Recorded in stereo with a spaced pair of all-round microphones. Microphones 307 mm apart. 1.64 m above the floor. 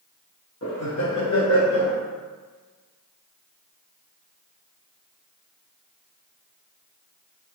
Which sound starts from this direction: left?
Laughter, at 0.6 s.